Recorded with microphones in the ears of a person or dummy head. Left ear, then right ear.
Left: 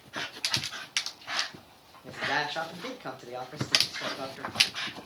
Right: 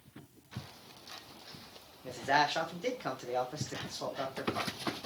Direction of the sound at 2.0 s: Centre (ahead or behind).